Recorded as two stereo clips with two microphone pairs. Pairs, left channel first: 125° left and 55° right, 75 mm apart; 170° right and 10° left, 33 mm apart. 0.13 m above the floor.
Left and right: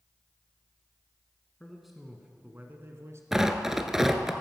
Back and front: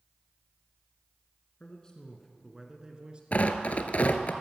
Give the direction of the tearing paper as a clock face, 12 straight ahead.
5 o'clock.